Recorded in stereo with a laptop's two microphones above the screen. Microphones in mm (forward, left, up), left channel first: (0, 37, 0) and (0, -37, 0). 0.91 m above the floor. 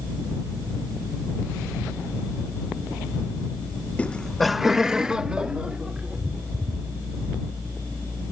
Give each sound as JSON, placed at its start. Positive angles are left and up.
{"t": 4.0, "sound": "laughter", "side_deg": 20}